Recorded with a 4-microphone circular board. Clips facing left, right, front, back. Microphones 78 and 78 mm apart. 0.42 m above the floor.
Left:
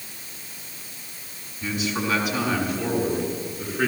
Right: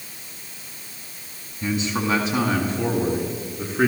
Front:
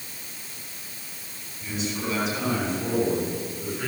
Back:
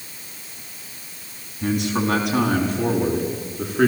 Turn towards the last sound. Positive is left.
turn(degrees=-150)